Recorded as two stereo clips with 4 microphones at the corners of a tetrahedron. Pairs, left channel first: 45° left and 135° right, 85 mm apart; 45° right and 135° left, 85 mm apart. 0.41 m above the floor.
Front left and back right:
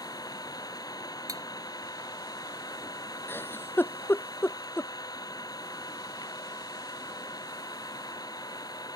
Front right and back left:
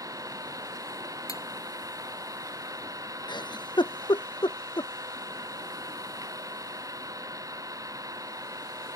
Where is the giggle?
20° right.